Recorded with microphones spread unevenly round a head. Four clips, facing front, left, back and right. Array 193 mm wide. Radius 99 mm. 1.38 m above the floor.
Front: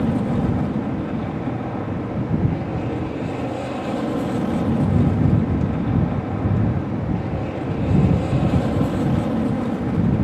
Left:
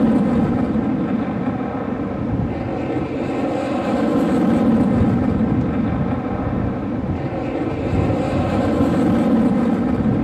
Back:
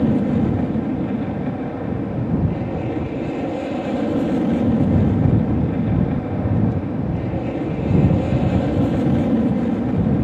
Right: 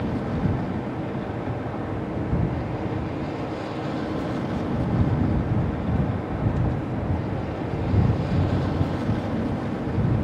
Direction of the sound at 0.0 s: 120° left.